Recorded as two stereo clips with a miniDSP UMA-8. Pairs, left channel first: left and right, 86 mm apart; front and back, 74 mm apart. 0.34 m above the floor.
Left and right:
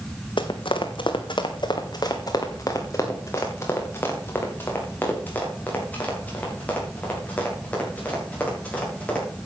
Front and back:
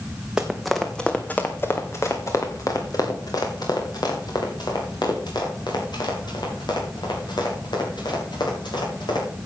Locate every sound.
0.4 s running footsteps: 100° left, 1.4 m; by 9.2 s 15° left, 7.5 m